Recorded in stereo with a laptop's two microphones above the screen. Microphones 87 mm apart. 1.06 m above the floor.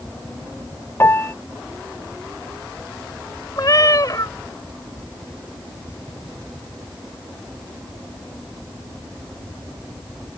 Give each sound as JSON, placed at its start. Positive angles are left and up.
{"t": 0.0, "sound": "a fan", "side_deg": 60}
{"t": 1.0, "sound": "a piano", "side_deg": 30}
{"t": 3.6, "sound": "a cat meowing", "side_deg": 45}